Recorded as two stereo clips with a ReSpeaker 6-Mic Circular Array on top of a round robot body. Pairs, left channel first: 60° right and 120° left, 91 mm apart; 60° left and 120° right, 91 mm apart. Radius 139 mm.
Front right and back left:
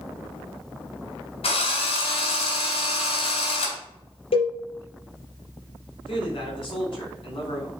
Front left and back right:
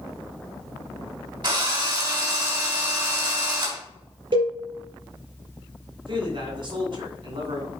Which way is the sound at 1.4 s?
75° right.